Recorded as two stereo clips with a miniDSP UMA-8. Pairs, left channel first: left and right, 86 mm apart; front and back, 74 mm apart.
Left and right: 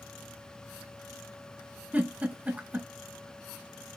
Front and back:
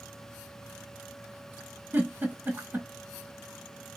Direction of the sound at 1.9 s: 140° right.